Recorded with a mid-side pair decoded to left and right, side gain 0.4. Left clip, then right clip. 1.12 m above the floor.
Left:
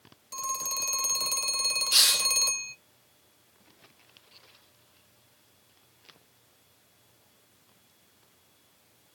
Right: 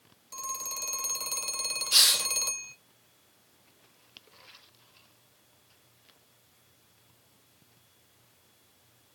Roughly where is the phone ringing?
Ahead left.